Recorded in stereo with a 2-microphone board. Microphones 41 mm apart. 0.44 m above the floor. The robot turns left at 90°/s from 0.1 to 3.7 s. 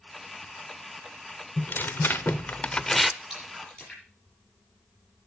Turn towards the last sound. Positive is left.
turn(degrees=20)  # may be behind; listen again after turning